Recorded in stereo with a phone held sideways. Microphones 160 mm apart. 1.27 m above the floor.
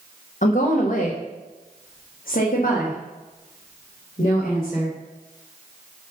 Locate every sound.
0.4 s a woman speaking: 60° left (ahead or behind), 1.3 m; by 4.9 s 55° left (ahead or behind), 3.5 m